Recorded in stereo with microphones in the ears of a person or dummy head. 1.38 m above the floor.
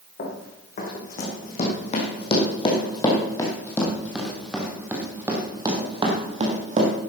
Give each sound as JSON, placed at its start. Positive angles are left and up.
{"t": 0.2, "sound": "running footsteps", "side_deg": 45, "distance_m": 4.0}